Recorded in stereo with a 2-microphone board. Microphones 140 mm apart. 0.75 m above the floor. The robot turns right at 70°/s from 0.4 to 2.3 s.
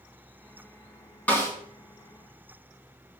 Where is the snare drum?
10° left (ahead or behind), 2.5 m; by 1.5 s 25° left (ahead or behind), 2.5 m.